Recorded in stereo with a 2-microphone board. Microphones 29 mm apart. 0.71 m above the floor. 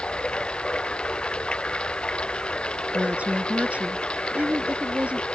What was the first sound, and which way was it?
Running water, 35° left (ahead or behind).